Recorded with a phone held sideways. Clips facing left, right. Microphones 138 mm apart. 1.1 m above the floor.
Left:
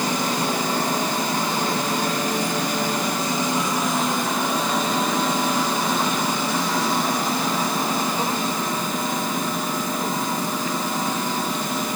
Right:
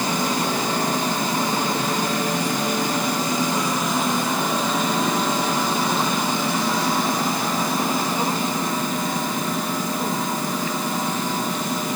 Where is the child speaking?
I don't hear a child speaking.